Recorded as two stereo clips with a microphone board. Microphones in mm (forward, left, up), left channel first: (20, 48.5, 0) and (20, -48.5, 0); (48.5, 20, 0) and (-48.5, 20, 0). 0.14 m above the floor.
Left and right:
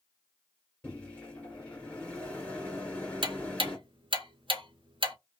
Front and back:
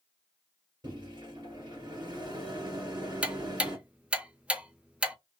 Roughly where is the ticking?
Right.